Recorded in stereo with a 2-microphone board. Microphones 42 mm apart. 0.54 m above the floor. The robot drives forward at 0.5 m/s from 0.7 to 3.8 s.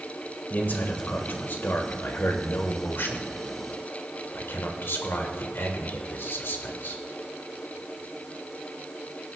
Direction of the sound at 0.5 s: 45° left (ahead or behind).